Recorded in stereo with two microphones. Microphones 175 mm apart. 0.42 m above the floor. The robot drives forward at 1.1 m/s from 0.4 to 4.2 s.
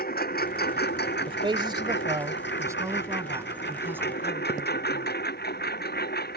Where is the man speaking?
30° right (ahead or behind); by 5.2 s 10° right (ahead or behind).